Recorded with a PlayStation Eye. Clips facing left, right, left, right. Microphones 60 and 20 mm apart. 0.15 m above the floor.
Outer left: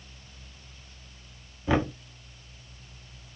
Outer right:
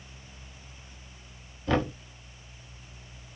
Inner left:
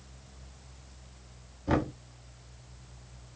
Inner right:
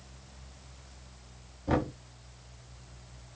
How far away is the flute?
I don't hear a flute.